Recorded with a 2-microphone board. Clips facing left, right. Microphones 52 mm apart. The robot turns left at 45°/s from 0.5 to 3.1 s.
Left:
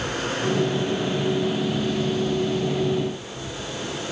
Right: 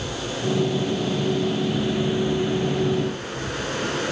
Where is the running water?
50° left, 5 m; by 4.1 s 65° right, 5 m.